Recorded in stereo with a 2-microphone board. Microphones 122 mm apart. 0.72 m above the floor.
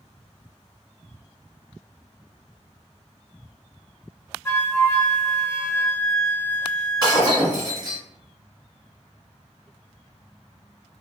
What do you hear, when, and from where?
4.5 s a flute: 20° left (ahead or behind), 0.6 m
7.0 s breaking glass: 40° right (ahead or behind), 1.4 m